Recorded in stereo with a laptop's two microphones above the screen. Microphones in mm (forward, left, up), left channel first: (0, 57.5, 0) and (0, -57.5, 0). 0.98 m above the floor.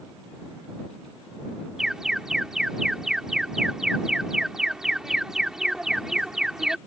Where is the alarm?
5° right (ahead or behind).